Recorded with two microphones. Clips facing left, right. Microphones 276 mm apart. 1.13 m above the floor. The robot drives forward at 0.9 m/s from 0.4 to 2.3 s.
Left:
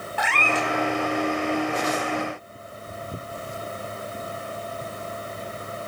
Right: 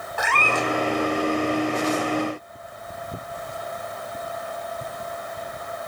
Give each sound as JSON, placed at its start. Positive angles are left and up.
{"t": 0.2, "sound": "a cat meowing", "side_deg": -50, "distance_m": 1.5}